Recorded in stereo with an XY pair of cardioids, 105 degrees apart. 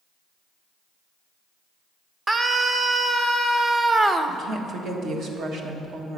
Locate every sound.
2.3 s a scream: 25° right, 0.8 m
4.3 s a woman speaking: 65° right, 1.6 m